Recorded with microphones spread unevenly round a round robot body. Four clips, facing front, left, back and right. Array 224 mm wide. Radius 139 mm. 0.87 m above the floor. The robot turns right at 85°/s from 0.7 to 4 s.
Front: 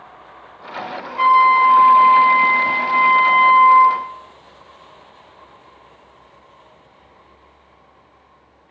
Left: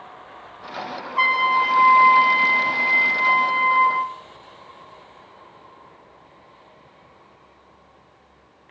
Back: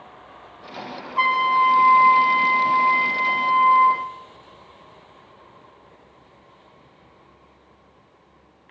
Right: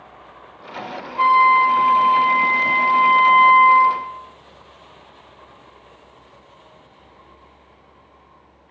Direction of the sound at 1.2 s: 130° left.